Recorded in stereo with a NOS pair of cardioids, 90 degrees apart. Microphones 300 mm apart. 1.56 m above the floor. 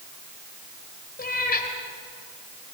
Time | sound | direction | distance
1.2 | a cat meowing | 30° left | 3.5 m